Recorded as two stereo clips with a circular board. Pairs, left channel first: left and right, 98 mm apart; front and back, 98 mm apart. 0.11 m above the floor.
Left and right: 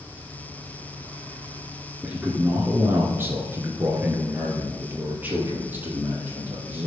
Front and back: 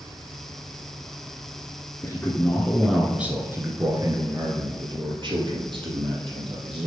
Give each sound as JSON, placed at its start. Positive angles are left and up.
{"t": 2.0, "sound": "a man speaking", "azimuth_deg": -25, "distance_m": 1.3}